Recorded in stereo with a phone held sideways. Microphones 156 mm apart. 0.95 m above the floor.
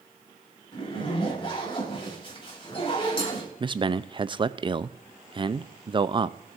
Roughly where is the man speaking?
Right.